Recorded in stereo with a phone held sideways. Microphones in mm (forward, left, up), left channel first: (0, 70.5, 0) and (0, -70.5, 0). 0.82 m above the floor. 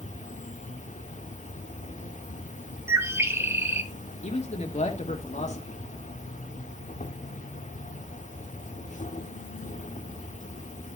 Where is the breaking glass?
I don't hear breaking glass.